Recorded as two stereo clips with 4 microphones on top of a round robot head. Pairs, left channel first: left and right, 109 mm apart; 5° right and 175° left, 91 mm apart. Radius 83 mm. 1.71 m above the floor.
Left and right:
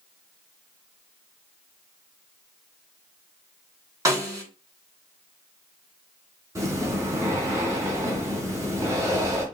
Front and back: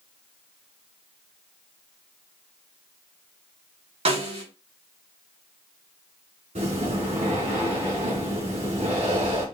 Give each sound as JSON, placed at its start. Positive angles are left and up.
{"t": 4.0, "sound": "a snare drum", "azimuth_deg": -150, "distance_m": 4.5}
{"t": 6.5, "sound": "breathing", "azimuth_deg": -150, "distance_m": 4.5}